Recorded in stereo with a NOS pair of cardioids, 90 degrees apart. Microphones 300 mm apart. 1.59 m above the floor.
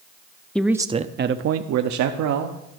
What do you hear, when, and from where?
0.6 s a man speaking: 5° left, 0.6 m; by 2.6 s 80° right, 1.0 m